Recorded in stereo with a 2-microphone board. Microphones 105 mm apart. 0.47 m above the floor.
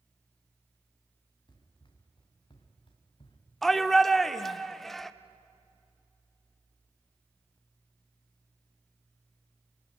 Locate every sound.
1.5 s running footsteps: 45° left (ahead or behind), 3.5 m; by 3.4 s 55° left (ahead or behind), 2.5 m
3.6 s a shout: 5° left (ahead or behind), 0.7 m